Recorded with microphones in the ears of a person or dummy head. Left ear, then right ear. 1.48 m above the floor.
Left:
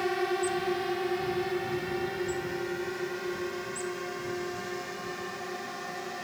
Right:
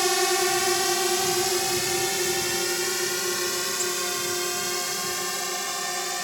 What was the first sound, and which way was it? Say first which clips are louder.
A drone: right 6 dB; 75° right (ahead or behind).